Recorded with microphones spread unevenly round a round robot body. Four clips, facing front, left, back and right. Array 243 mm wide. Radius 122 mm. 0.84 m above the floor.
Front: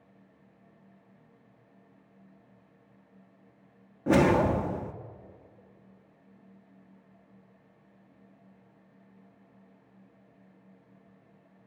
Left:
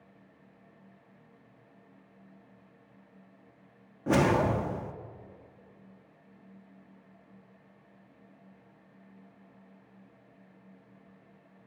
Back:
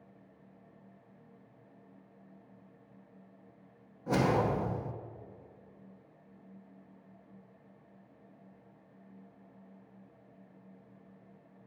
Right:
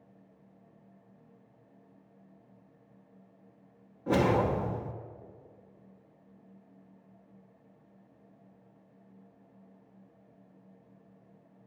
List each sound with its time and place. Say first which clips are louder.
4.1 s a whoosh: left 1 dB, front 6 dB; 25° left, 1.0 m